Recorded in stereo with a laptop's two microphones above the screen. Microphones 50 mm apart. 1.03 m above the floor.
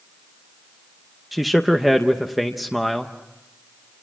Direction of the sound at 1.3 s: Centre (ahead or behind).